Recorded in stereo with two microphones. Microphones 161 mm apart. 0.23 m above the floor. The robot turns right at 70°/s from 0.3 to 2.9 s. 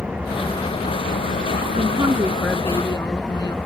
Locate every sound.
0.0 s an engine running: 5° right; by 3.7 s 175° left
1.7 s a woman speaking: 50° right; by 3.6 s 30° left